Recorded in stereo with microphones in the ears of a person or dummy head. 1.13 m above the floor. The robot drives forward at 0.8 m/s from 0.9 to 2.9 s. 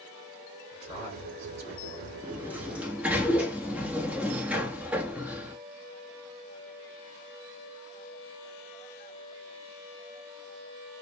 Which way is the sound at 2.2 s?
5° right (ahead or behind).